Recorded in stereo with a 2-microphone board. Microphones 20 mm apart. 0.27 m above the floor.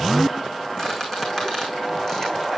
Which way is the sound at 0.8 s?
25° left (ahead or behind).